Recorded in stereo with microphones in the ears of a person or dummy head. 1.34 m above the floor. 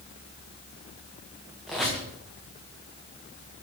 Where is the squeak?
5° left (ahead or behind), 0.6 m.